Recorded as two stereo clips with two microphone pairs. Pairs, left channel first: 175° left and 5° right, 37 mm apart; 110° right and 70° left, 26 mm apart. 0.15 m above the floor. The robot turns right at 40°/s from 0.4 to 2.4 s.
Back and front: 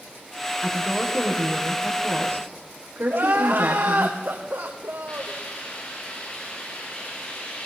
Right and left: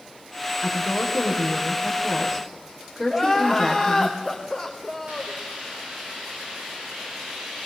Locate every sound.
0.6 s a woman speaking: 80° right, 6 m; by 4.1 s 10° right, 6 m
3.1 s crying: 20° right, 3 m
5.1 s a hiss: 115° left, 8 m